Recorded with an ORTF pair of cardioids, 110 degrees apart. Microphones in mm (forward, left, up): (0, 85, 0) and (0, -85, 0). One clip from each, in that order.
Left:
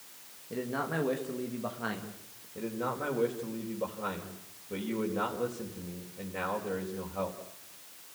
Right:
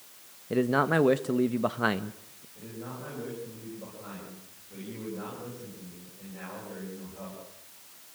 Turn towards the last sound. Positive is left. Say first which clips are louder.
# left 8 dB
turn(degrees=65)